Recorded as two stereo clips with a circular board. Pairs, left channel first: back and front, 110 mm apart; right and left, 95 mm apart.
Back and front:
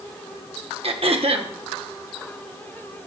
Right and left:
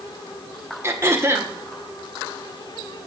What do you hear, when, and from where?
0.8 s throat clearing: 30° left, 1.1 m